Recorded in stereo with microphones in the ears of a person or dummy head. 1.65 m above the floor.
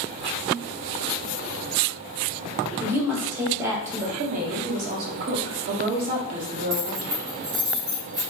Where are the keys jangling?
35° right (ahead or behind), 0.8 m.